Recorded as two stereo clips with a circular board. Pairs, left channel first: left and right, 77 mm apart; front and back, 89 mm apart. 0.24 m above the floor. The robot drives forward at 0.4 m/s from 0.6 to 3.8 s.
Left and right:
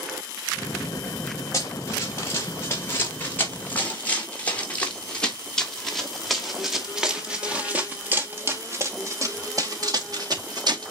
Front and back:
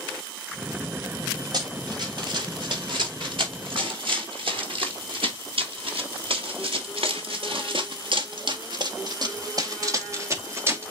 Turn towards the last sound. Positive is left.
turn(degrees=-115)